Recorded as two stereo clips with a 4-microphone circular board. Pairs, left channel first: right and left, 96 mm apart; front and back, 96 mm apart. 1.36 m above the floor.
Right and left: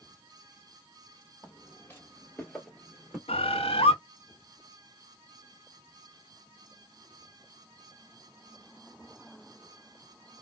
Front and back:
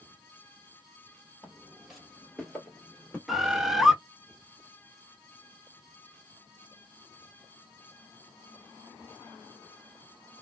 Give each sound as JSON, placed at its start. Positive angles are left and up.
{"t": 1.4, "sound": "footsteps", "azimuth_deg": -105, "distance_m": 1.5}
{"t": 3.3, "sound": "a bird", "azimuth_deg": -95, "distance_m": 0.5}